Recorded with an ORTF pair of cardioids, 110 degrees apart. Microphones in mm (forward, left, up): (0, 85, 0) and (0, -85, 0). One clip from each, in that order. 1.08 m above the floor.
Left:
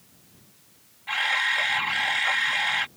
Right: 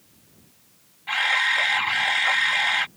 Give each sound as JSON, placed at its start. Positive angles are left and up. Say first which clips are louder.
{"t": 1.1, "sound": "a camera shutter", "louder": "right 3 dB", "azimuth_deg": -20}